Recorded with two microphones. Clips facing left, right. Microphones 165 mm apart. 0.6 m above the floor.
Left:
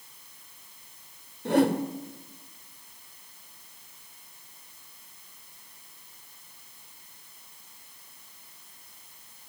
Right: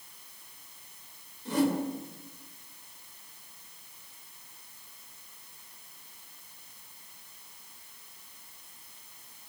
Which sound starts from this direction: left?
A whoosh, at 1.4 s.